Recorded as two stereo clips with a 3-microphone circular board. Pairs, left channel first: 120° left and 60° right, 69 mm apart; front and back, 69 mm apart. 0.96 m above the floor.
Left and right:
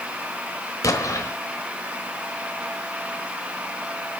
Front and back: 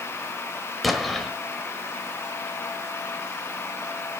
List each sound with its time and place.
0.8 s an explosion: 90° left, 1.3 m